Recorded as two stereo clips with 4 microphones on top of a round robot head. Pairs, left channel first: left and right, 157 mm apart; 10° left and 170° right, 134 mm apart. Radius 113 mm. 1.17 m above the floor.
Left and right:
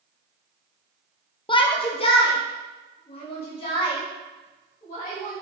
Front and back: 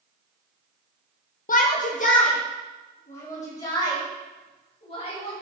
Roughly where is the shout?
Ahead left.